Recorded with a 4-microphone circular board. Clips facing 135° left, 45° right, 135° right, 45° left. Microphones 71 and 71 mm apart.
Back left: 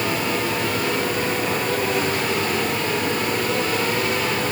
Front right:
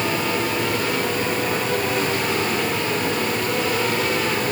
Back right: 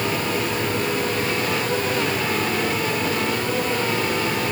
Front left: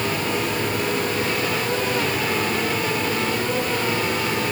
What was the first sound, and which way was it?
Only background noise.